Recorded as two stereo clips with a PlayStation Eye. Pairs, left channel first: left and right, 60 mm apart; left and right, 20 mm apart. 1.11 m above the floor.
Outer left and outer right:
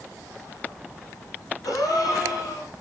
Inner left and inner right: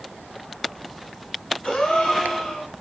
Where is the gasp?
75° left (ahead or behind), 9 m.